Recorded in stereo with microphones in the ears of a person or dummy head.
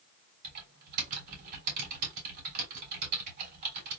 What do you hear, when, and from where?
0.4 s typing on a keyboard: 50° right (ahead or behind), 2.5 m